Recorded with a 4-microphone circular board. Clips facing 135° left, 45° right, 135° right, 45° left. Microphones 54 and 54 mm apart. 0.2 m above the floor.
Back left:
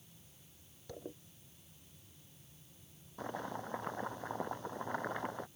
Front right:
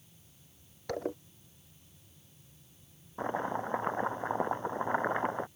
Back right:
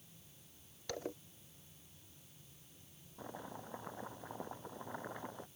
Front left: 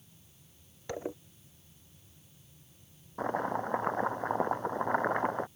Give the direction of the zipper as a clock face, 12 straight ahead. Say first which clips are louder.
Front right 13 dB, front left 6 dB; 1 o'clock.